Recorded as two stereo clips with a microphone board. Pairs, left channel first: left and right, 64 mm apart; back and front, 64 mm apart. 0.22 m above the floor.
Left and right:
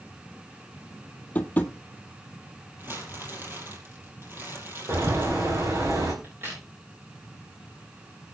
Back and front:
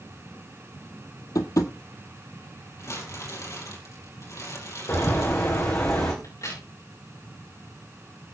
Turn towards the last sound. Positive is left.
turn(degrees=-150)